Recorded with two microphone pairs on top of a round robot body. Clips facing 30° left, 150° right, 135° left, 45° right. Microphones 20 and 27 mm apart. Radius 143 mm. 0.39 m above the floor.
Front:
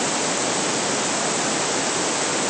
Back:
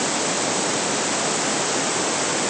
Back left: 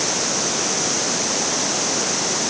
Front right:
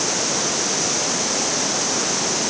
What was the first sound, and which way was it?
Only background noise.